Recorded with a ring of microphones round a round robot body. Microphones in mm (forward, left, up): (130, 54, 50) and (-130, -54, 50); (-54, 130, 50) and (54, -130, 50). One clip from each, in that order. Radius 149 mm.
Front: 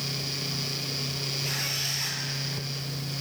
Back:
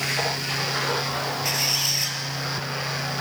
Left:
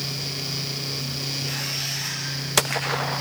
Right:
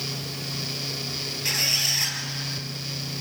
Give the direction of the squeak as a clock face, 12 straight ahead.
3 o'clock.